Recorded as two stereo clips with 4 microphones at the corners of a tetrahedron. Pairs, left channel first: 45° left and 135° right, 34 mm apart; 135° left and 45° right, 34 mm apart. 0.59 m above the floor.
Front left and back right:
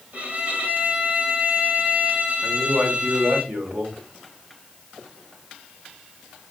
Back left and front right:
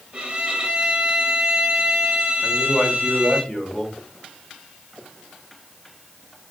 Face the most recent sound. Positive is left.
turn(degrees=-145)